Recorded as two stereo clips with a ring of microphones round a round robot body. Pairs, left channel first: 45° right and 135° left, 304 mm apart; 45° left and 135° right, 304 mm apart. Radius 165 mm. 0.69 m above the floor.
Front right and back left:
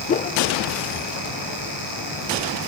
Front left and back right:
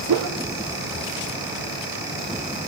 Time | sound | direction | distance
0.1 | a whoosh | 110° right | 0.9 m